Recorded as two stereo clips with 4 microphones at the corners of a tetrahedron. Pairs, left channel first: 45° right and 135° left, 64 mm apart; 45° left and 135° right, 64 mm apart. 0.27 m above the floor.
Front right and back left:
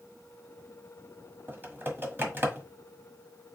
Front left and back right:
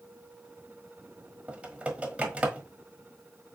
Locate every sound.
1.5 s typing on a keyboard: 165° left, 1.3 m